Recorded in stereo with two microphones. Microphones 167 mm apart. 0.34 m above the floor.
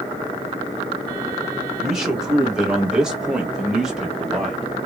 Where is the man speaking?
5° right (ahead or behind), 1.1 m.